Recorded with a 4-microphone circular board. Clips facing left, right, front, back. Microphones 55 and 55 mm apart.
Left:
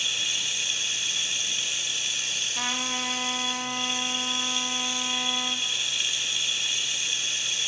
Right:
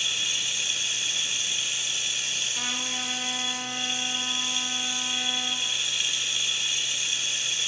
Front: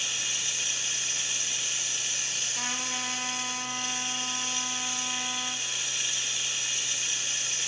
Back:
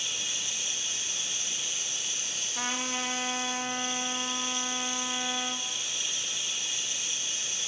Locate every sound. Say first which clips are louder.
0.0 s running water: even, front 2 dB; 5° right, 0.9 m
2.5 s a trumpet: left 2 dB, back 3 dB; 140° left, 0.9 m